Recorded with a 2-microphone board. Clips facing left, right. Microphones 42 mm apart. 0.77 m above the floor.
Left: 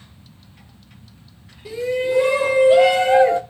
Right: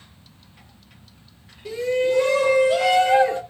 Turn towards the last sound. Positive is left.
turn(degrees=25)  # may be behind; listen again after turning